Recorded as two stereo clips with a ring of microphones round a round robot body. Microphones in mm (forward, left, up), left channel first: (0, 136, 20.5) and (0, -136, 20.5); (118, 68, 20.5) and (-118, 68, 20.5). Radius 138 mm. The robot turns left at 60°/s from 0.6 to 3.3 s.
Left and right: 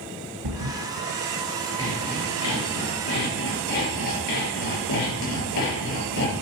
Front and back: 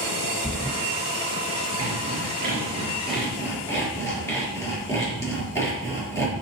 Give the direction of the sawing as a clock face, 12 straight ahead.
6 o'clock.